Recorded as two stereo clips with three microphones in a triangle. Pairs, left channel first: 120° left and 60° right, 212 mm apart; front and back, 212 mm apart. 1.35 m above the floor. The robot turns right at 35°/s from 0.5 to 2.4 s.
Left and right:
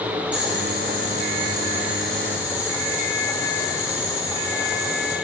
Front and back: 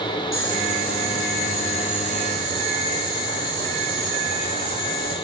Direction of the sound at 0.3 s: 25° right.